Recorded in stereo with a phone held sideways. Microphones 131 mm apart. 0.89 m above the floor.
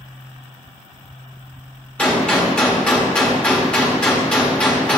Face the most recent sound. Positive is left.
turn(degrees=10)  # may be behind; listen again after turning